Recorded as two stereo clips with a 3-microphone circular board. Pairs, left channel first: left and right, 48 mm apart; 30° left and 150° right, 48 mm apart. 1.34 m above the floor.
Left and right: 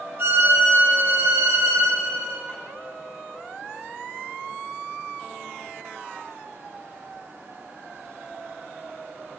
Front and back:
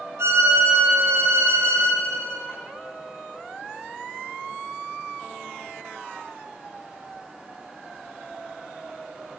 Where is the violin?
130° right, 1.6 m.